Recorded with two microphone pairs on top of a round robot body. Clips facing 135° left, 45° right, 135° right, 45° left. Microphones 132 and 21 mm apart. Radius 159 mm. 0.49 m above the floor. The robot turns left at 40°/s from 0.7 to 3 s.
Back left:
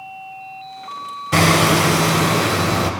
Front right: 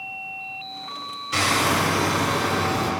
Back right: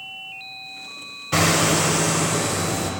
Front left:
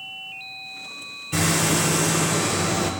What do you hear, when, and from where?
1.3 s hammering: 175° left, 0.8 m; by 2.9 s 115° left, 0.8 m